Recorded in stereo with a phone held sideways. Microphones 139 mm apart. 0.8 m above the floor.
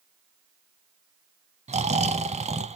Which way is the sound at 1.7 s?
55° right (ahead or behind).